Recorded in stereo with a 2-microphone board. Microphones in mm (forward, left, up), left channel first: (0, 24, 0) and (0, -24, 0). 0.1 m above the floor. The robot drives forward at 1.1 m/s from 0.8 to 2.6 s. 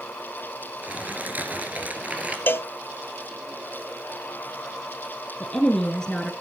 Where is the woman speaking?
15° left (ahead or behind), 1.2 m.